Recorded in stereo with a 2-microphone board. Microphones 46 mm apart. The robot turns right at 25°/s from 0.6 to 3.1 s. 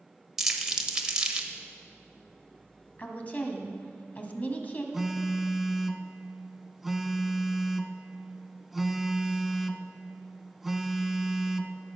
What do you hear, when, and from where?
0.4 s crumpling: 10° right (ahead or behind), 1.3 m; by 1.5 s 20° right (ahead or behind), 1.3 m
3.0 s a woman speaking: 35° left (ahead or behind), 1.9 m
4.9 s a phone buzzing: 5° right (ahead or behind), 0.8 m